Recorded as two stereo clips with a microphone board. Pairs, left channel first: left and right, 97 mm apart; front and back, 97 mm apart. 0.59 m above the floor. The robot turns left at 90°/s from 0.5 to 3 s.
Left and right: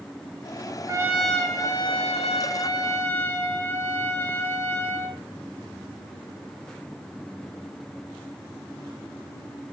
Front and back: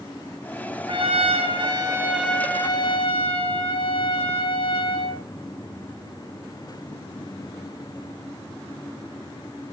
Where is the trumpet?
145° right, 3 m; by 5.2 s 25° left, 3 m.